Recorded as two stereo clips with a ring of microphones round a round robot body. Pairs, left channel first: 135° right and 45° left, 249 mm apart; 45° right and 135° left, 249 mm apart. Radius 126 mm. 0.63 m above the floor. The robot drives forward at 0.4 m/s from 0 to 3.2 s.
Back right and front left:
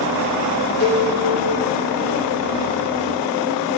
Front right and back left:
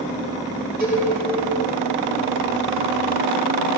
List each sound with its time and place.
0.8 s a cowbell: 170° right, 4.5 m